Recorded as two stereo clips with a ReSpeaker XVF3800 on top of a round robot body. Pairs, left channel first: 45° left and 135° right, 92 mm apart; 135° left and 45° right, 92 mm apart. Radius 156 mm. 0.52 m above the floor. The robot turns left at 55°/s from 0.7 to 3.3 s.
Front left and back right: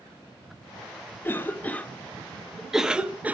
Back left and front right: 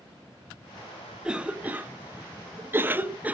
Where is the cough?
25° left, 0.6 m; by 3.3 s 90° right, 0.6 m.